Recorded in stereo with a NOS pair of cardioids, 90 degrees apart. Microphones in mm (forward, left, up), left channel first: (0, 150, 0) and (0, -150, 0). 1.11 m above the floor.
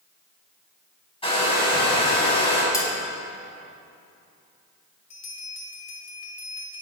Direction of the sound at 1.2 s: 20° left.